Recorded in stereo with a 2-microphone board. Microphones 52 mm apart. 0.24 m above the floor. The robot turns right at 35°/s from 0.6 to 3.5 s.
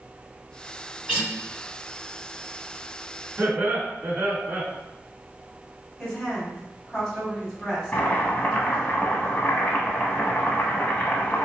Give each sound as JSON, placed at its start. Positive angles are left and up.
{"t": 1.1, "sound": "a guitar", "side_deg": -15, "distance_m": 1.5}
{"t": 3.4, "sound": "laughter", "side_deg": -45, "distance_m": 1.8}
{"t": 6.0, "sound": "a woman speaking", "side_deg": 0, "distance_m": 1.4}
{"t": 7.9, "sound": "boiling", "side_deg": 30, "distance_m": 0.8}